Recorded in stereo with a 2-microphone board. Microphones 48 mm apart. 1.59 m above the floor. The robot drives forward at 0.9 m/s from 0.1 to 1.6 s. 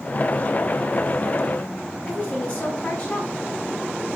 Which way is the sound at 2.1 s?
35° left (ahead or behind).